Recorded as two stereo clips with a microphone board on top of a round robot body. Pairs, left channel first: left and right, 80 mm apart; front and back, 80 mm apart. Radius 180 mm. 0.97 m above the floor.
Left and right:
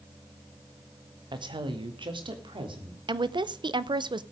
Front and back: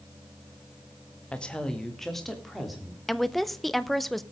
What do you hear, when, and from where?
1.3 s a woman speaking: 75° right, 1.9 m; by 3.0 s 90° right, 4 m
3.1 s a woman speaking: 85° right, 1.0 m